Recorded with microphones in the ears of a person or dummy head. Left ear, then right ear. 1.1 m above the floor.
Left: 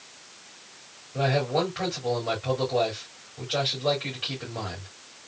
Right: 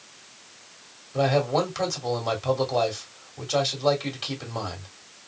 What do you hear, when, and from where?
1.1 s a man speaking: 80° right, 2.5 m